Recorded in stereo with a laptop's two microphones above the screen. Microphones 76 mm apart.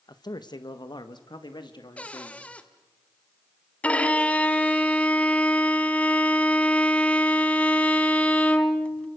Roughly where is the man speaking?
Left.